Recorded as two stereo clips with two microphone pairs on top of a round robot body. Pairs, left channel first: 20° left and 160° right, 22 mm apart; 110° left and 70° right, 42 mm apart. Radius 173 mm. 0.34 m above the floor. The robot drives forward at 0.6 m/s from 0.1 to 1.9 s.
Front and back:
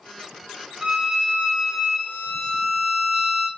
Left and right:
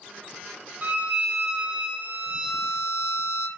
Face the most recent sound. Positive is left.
turn(degrees=-130)